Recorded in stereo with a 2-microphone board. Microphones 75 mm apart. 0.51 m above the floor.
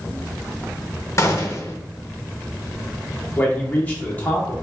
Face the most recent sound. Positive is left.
turn(degrees=25)  # may be behind; listen again after turning